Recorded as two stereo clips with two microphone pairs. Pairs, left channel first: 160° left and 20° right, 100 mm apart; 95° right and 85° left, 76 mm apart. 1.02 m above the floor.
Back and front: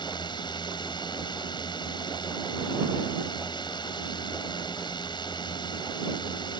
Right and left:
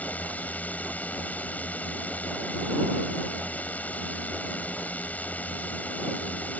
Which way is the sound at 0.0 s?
165° right.